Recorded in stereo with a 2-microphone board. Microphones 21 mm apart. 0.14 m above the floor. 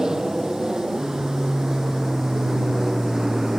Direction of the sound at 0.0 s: 25° right (ahead or behind).